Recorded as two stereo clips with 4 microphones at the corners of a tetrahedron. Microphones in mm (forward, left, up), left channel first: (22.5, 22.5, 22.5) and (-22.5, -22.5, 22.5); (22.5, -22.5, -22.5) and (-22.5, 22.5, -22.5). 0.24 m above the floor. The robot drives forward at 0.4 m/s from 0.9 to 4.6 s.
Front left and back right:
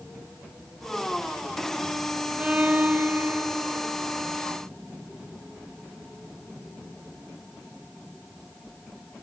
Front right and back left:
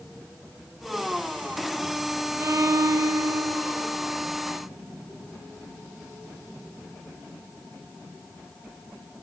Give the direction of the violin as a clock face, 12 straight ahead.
7 o'clock.